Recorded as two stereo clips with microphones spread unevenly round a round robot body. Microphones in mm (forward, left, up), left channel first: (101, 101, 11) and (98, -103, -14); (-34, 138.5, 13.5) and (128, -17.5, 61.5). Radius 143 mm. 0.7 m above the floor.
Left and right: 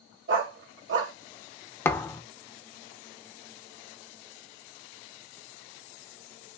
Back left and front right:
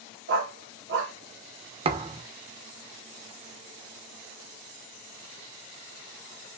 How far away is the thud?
About 0.5 m.